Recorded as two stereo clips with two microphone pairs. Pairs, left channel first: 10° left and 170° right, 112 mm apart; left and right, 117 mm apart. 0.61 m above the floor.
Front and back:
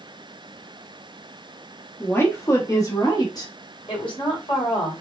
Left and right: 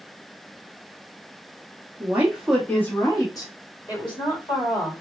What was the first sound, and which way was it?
A woman speaking, 45° right.